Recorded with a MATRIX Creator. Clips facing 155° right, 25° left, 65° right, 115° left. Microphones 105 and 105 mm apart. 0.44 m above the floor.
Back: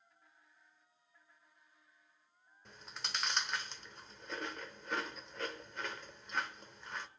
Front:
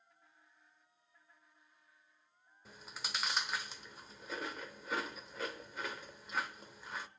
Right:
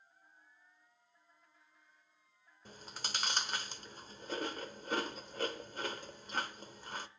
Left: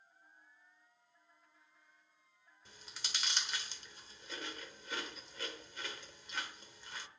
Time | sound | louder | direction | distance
2.6 | chewing | even, right 6 dB | 65° right | 0.9 m